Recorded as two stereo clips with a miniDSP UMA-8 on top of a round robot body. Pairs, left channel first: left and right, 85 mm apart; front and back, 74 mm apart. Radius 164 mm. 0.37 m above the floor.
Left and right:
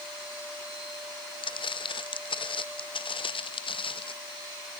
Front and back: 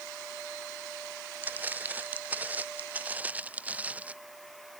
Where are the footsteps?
115° left; by 4.1 s 110° left.